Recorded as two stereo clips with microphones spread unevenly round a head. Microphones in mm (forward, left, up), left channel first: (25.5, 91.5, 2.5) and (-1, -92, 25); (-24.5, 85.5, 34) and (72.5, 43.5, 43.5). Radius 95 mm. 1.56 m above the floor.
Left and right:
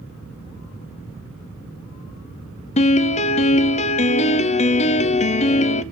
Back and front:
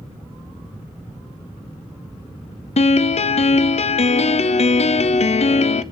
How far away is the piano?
About 0.6 m.